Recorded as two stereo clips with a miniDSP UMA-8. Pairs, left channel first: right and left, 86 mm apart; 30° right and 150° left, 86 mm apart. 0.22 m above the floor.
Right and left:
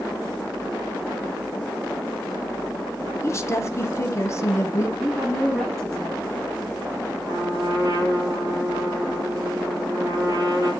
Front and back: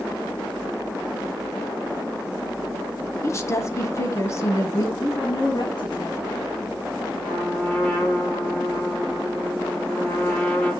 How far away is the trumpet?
About 5.5 m.